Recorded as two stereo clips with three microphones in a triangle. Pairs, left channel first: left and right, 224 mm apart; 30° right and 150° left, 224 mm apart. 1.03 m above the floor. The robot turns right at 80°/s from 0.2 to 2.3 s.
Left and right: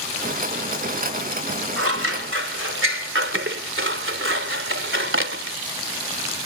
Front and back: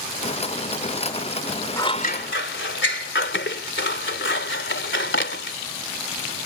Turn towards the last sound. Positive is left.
turn(degrees=-65)